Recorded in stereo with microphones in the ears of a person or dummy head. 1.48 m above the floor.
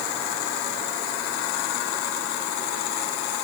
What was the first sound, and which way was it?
Only background noise.